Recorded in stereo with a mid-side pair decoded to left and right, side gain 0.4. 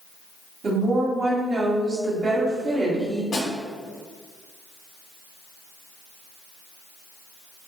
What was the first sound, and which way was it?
A woman speaking, 55° right.